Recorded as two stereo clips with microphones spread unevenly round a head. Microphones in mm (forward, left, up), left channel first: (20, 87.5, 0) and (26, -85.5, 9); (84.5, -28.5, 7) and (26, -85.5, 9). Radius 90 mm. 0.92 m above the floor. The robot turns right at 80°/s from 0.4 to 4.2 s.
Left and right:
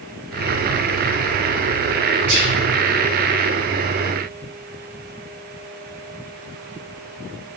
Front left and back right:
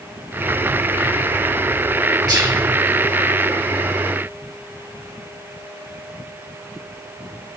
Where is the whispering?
105° right, 1.4 m; by 2.5 s 85° right, 1.4 m.